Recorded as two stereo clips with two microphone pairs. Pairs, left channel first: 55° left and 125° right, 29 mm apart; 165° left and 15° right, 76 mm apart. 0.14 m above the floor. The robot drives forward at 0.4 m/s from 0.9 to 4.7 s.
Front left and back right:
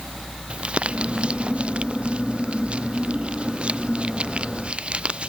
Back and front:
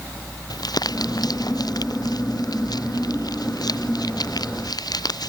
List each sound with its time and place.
0.5 s crumpling: 170° right